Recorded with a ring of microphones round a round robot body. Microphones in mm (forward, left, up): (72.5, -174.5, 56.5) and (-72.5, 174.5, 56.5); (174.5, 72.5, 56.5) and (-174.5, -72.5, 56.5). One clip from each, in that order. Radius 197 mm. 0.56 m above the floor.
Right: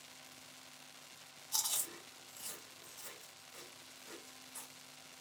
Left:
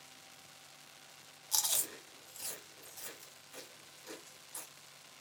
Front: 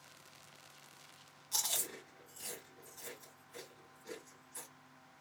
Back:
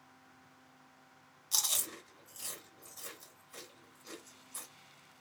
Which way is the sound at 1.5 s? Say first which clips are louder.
Left 4 dB, back 4 dB; 155° left.